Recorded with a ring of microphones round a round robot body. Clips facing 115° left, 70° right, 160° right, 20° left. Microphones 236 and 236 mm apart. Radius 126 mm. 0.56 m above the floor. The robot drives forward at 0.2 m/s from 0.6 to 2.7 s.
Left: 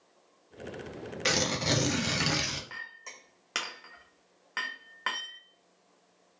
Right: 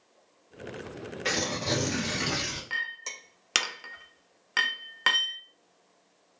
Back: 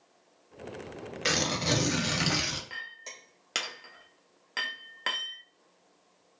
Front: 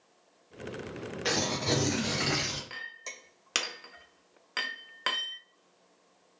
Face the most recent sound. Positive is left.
turn(degrees=-55)